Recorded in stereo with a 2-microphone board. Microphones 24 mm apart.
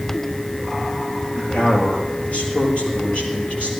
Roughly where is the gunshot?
No gunshot in this recording.